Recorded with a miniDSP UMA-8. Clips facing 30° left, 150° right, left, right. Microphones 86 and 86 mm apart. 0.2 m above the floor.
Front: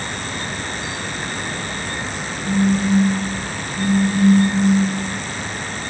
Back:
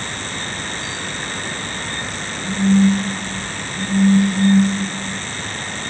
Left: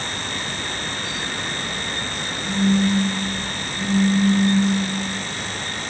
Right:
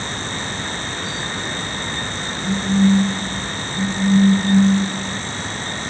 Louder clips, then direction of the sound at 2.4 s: Back 3 dB, right 2 dB; 105° right.